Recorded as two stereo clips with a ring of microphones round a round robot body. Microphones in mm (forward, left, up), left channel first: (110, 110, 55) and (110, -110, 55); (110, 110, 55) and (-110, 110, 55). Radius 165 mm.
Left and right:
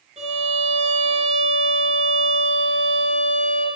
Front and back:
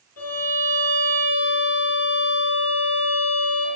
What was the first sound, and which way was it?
A violin, 30° right.